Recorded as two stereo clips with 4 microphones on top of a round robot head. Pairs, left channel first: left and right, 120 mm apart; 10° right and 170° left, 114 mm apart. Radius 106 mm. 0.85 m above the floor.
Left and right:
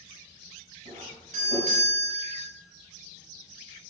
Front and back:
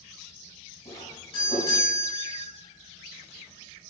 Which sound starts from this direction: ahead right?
A doorbell, at 0.8 s.